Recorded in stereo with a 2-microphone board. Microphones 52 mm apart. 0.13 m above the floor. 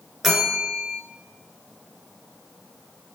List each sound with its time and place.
0.2 s a bell: 5° right (ahead or behind), 0.8 m